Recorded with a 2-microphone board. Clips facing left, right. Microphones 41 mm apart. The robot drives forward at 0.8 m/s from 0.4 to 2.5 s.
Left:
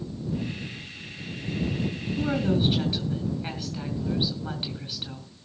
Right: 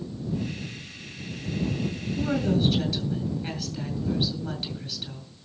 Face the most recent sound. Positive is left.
turn(degrees=30)  # may be behind; listen again after turning